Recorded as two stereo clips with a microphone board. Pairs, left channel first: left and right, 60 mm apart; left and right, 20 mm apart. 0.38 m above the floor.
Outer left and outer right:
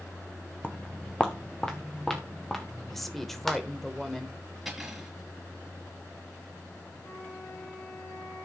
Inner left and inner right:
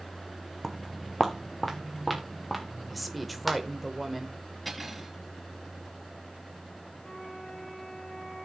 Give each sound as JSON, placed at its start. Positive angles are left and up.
{"t": 0.6, "sound": "footsteps", "side_deg": 20, "distance_m": 0.8}
{"t": 2.9, "sound": "a woman speaking", "side_deg": 0, "distance_m": 1.1}
{"t": 4.7, "sound": "cutlery clinking", "side_deg": 0, "distance_m": 4.0}
{"t": 7.0, "sound": "a flute", "side_deg": 75, "distance_m": 4.0}